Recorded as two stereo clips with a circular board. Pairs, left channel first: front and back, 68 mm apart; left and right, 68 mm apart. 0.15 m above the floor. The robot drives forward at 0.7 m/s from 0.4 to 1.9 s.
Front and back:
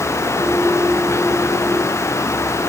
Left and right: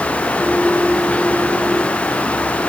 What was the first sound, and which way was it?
Only background noise.